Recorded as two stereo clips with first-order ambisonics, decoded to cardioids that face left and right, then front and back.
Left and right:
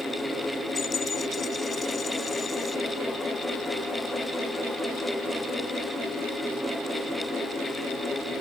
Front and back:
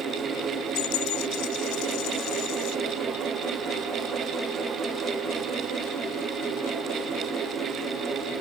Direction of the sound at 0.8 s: 20° left.